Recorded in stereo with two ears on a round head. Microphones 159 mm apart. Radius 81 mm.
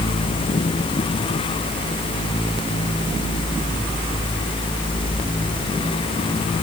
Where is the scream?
I don't hear a scream.